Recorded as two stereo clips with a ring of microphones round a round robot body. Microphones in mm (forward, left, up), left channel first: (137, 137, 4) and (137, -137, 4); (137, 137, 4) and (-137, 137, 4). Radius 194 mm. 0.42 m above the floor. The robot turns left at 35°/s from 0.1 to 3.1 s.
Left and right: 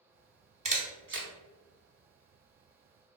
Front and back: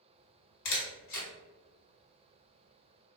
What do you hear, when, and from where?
0.7 s a camera shutter: 20° right, 0.9 m; by 1.3 s 45° right, 0.9 m